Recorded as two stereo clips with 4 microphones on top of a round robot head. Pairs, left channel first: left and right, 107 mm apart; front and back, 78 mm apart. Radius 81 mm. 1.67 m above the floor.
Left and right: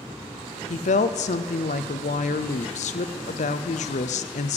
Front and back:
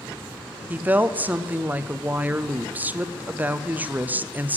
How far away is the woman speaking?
About 0.6 m.